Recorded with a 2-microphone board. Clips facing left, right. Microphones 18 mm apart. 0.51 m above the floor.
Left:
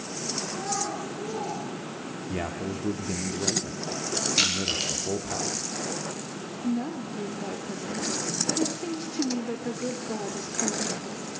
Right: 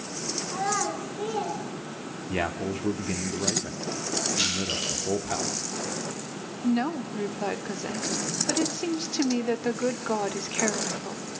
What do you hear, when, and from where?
0.5 s a child speaking: 40° right (ahead or behind), 3.5 m; by 1.6 s 30° right (ahead or behind), 4 m
2.3 s a man speaking: 25° right (ahead or behind), 1.1 m
4.4 s crushing: 85° left, 10 m
6.6 s a woman speaking: 50° right (ahead or behind), 1.3 m